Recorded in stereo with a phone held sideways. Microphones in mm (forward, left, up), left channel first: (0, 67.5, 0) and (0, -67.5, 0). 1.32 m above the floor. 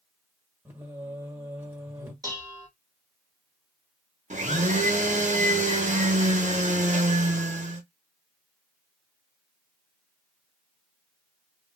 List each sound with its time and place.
0.7 s singing: 15° right (ahead or behind), 1.3 m
2.2 s dishes clattering: 25° right (ahead or behind), 1.1 m
4.3 s a blender: 60° right (ahead or behind), 0.7 m